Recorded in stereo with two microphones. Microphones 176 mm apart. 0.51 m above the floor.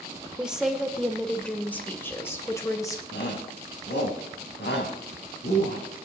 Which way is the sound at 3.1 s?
75° left (ahead or behind).